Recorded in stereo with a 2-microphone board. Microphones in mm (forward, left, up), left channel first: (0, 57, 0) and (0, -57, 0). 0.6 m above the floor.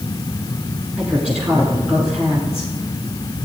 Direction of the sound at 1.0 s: 10° left (ahead or behind).